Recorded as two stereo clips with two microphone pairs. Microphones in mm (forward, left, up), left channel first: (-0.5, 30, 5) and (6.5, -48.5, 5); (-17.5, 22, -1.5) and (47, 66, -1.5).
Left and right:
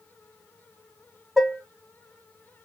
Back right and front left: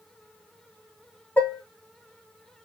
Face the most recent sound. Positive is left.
turn(degrees=-160)